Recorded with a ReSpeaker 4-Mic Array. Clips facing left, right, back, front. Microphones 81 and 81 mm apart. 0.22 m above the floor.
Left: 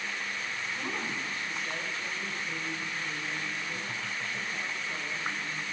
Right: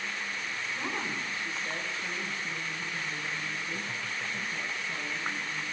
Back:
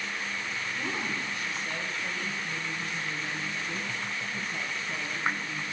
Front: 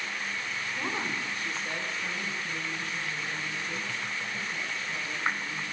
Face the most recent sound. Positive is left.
turn(degrees=-170)